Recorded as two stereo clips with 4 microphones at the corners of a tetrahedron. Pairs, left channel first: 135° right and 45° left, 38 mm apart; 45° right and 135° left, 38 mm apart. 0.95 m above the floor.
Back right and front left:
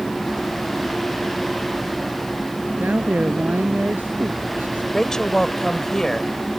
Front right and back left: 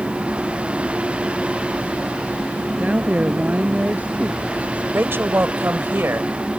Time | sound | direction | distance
2.8 | a woman speaking | 85° left | ?
4.9 | a woman speaking | 155° left | ?